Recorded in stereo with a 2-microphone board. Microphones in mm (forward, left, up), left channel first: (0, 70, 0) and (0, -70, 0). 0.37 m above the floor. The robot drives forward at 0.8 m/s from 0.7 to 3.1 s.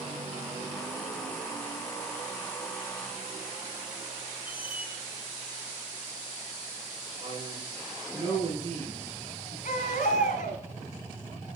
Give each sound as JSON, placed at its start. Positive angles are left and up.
{"t": 4.5, "sound": "a squeak", "side_deg": 40, "distance_m": 1.9}
{"t": 7.2, "sound": "a man speaking", "side_deg": -45, "distance_m": 5.0}
{"t": 9.7, "sound": "a baby crying", "side_deg": 80, "distance_m": 1.4}